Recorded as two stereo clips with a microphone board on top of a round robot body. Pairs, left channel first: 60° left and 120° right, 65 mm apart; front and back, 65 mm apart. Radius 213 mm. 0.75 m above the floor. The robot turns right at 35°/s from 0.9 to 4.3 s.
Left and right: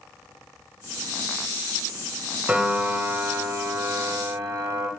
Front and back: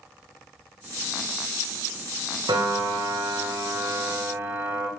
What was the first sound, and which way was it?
A piano, 170° left.